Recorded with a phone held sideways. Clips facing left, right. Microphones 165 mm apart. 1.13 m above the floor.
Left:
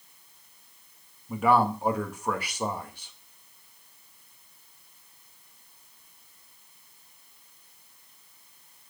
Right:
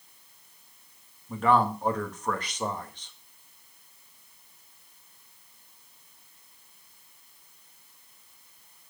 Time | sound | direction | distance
1.3 | a man speaking | 10° left (ahead or behind) | 1.7 m